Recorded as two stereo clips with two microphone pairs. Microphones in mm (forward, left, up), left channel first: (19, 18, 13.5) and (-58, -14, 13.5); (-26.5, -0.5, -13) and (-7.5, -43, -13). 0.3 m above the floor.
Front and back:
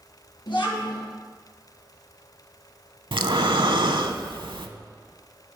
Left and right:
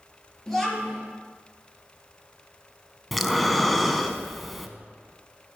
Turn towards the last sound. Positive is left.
turn(degrees=-155)